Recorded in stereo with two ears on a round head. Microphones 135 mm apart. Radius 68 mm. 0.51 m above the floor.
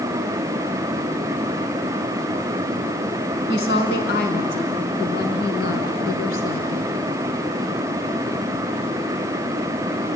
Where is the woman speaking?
80° left, 4.5 m; by 7.0 s 65° left (ahead or behind), 6 m.